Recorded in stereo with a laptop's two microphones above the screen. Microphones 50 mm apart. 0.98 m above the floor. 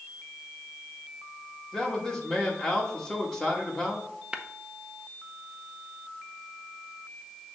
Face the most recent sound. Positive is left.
turn(degrees=-20)  # may be behind; listen again after turning